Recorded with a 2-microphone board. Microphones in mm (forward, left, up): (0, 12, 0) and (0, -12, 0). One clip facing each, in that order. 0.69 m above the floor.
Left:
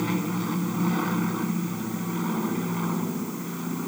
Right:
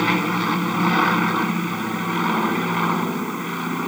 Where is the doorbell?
No doorbell in this recording.